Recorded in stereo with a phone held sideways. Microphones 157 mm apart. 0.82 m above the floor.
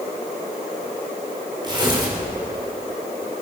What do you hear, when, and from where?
1.6 s tearing paper: 30° right (ahead or behind), 3 m